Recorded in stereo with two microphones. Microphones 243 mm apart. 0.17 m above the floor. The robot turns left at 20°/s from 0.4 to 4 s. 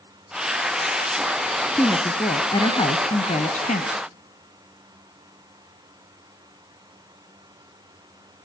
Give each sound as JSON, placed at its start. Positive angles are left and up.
{"t": 1.8, "sound": "a woman speaking", "azimuth_deg": 170, "distance_m": 1.2}